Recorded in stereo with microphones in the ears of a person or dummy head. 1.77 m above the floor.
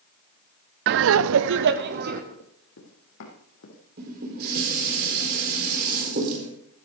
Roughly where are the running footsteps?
Left.